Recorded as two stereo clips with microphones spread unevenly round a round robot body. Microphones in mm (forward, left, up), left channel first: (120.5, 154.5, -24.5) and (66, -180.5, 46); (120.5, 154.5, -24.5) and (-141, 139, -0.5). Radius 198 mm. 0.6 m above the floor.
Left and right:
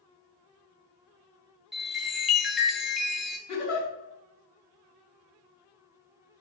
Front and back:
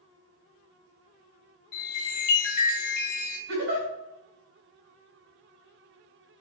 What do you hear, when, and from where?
1.7 s a chime: 5° right, 0.5 m
3.5 s a giggle: 150° left, 1.7 m